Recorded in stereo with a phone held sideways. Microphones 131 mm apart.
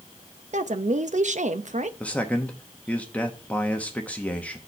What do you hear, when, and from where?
0.5 s a woman speaking: 60° right (ahead or behind), 0.8 m
2.0 s a man speaking: 10° left (ahead or behind), 0.9 m